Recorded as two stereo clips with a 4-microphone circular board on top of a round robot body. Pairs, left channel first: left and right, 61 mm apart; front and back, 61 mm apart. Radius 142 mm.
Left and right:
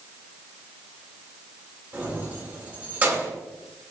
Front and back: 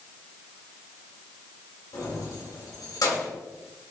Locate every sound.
1.9 s keys jangling: 25° right, 3.5 m